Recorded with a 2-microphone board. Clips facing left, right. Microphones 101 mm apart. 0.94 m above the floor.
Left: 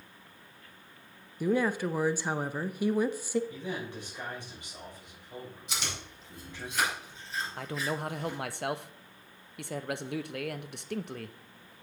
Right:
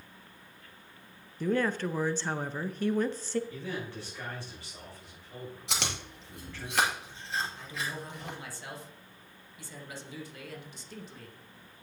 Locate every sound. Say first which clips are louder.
1.4 s a woman speaking: left 1 dB; 10° left (ahead or behind), 0.6 m
3.5 s a man speaking: left 1 dB; 20° left (ahead or behind), 5 m
5.7 s chewing: right 4 dB; 80° right, 2.5 m
7.6 s a man speaking: left 5 dB; 65° left (ahead or behind), 0.7 m